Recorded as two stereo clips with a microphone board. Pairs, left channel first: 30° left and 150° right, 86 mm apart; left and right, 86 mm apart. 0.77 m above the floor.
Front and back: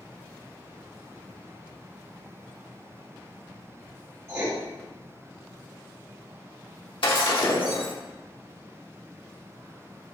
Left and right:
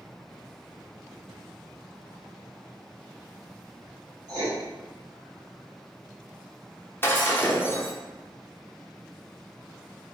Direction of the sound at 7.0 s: 25° left.